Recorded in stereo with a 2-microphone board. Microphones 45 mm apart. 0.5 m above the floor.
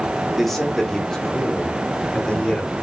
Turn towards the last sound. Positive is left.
turn(degrees=25)  # may be behind; listen again after turning